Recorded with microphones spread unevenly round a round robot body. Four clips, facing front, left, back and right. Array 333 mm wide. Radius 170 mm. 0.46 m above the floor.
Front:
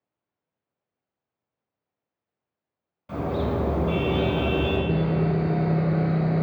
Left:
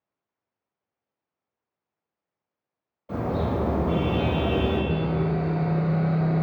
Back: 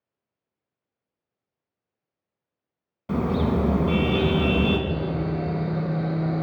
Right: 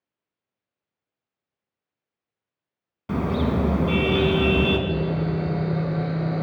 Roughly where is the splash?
I don't hear a splash.